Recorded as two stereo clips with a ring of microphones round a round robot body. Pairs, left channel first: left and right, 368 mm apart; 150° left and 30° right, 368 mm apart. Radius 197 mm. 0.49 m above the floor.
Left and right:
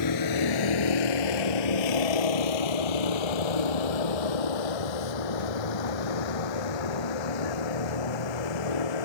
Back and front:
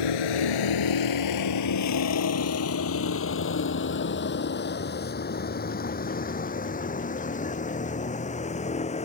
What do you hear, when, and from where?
0.0 s a vehicle: 130° left; by 9.1 s 75° left